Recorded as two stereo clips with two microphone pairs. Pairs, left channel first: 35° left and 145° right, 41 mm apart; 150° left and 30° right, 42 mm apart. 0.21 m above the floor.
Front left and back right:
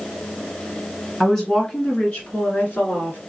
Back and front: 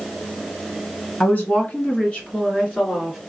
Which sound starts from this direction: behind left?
A woman speaking, at 1.2 s.